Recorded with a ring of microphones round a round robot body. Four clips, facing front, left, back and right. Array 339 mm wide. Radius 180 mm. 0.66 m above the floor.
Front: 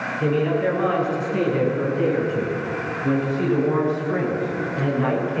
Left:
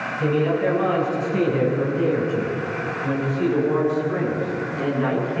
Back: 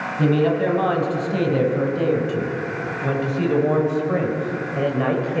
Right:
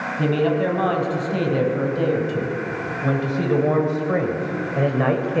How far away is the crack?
No crack in this recording.